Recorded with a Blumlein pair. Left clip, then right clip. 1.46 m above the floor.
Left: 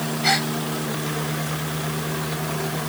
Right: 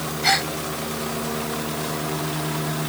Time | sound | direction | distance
0.2 | a gasp | straight ahead | ?